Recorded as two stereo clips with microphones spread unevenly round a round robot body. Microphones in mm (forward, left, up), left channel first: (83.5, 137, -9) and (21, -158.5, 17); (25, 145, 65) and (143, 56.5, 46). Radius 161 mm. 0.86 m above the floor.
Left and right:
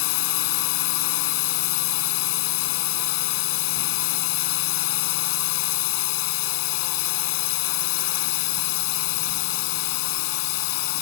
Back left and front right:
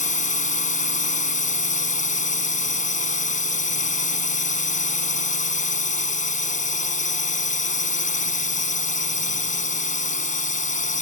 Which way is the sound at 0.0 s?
110° left.